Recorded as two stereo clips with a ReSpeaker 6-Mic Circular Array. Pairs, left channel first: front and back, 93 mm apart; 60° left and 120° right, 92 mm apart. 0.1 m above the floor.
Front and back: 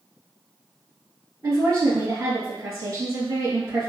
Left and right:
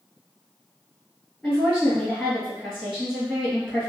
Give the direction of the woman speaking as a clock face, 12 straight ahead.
7 o'clock.